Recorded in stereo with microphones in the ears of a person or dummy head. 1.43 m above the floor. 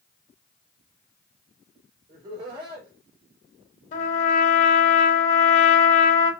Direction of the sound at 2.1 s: 30° right (ahead or behind).